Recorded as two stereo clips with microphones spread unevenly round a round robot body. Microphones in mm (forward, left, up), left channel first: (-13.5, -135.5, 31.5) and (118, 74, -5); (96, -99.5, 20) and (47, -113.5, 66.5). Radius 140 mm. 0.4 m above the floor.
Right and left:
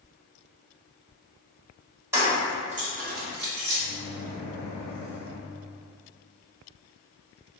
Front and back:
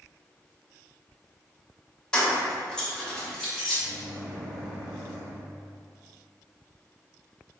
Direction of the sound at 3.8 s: 35° left.